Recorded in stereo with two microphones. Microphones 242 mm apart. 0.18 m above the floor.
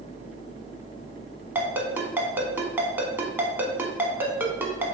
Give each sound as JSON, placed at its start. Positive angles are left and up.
{"t": 1.6, "sound": "a ringtone", "side_deg": -10, "distance_m": 0.8}